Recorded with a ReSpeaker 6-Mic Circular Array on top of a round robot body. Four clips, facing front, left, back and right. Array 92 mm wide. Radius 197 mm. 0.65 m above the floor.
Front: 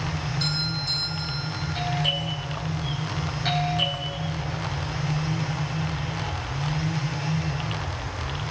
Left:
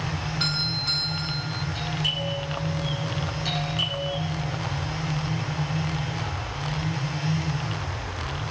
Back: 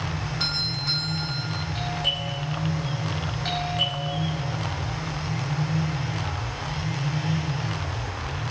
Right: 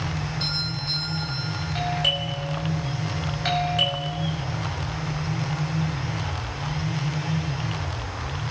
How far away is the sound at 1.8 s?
About 6 m.